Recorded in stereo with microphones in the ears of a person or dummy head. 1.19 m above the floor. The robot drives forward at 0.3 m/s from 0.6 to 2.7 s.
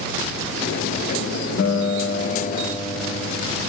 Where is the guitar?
50° left (ahead or behind), 1.0 m; by 3.7 s 40° left (ahead or behind), 1.2 m.